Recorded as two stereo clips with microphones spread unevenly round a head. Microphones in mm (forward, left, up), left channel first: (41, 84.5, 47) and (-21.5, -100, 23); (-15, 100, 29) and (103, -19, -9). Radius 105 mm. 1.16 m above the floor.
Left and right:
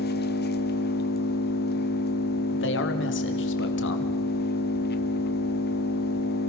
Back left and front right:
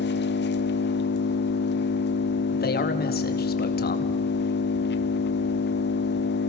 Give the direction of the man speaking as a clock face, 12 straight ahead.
9 o'clock.